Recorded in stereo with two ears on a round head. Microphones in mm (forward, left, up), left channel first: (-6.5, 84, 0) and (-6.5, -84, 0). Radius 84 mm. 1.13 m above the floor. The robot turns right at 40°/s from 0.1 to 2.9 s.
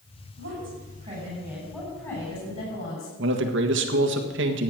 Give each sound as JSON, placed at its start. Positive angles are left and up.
{"t": 0.4, "sound": "a woman speaking", "azimuth_deg": -55, "distance_m": 8.0}
{"t": 3.2, "sound": "a man speaking", "side_deg": -70, "distance_m": 1.6}